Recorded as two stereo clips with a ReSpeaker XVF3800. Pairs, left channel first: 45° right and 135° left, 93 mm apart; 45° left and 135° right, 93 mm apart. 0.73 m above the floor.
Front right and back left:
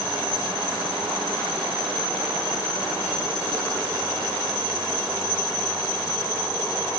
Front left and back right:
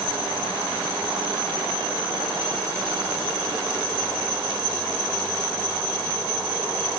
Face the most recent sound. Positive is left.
No sound to turn to.